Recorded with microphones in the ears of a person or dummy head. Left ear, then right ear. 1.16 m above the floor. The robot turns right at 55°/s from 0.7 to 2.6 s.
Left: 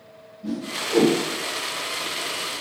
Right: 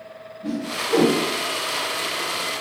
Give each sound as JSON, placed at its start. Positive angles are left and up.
{"t": 0.4, "sound": "a whoosh", "side_deg": -20, "distance_m": 0.9}